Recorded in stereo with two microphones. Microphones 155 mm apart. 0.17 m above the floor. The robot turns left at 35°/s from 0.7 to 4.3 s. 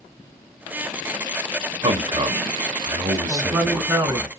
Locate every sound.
1.8 s a man speaking: 90° right, 1.6 m; by 4.3 s 175° right, 1.6 m
3.3 s a man speaking: 10° right, 1.2 m; by 4.3 s 45° right, 1.2 m